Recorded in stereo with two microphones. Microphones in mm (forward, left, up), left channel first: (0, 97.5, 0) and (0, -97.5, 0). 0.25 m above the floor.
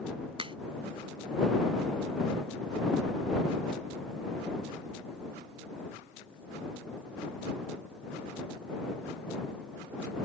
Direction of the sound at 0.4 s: 25° right (ahead or behind).